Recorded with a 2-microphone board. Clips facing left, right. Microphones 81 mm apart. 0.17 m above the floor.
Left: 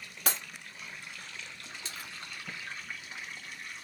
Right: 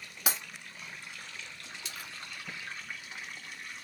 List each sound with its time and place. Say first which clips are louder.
0.3 s breaking glass: even; 10° right (ahead or behind), 1.2 m
1.9 s a splash: even; 35° left (ahead or behind), 0.7 m